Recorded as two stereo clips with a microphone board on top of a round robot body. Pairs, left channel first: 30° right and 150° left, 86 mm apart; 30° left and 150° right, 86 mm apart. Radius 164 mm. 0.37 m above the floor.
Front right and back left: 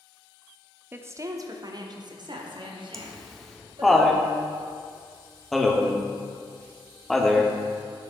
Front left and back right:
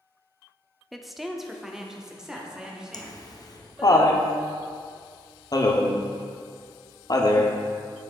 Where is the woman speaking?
120° left, 0.9 m; by 3.9 s 130° left, 2.5 m.